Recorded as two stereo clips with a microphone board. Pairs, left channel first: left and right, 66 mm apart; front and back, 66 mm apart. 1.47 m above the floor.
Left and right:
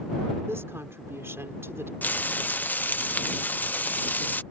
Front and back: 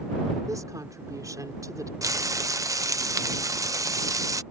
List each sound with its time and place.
0.5 s a woman speaking: 145° right
2.0 s frying: 150° left